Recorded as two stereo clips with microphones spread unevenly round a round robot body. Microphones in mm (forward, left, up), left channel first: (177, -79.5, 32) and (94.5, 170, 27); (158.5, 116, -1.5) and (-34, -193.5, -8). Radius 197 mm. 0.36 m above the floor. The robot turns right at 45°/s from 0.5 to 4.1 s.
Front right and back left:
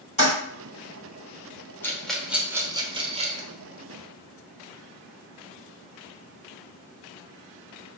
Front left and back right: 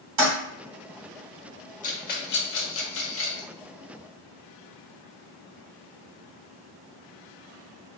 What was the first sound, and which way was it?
A toilet flushing, 140° right.